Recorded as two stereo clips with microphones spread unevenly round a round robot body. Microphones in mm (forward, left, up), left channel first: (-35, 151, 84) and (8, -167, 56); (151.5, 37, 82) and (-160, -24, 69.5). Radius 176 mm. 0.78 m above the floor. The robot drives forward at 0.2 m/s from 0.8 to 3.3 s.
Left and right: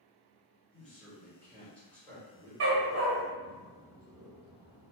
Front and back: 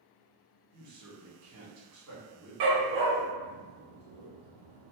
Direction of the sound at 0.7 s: 175° right.